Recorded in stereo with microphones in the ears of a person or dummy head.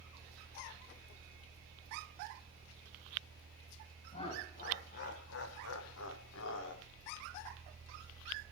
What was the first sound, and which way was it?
Laughter, 35° left (ahead or behind).